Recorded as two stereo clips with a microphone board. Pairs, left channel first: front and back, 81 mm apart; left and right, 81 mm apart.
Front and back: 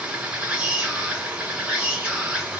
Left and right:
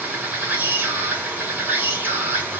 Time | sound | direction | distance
0.0 | an insect | 125° right | 1.3 m